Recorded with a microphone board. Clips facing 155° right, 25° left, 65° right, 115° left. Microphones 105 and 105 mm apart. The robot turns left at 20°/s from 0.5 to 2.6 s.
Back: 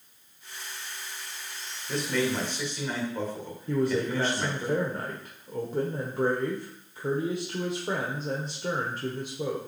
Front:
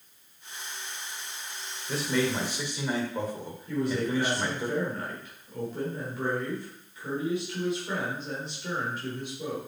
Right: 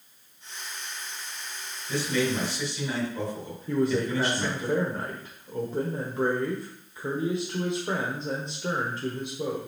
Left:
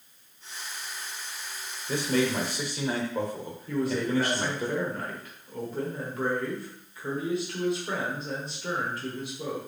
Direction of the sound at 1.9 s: 110° left.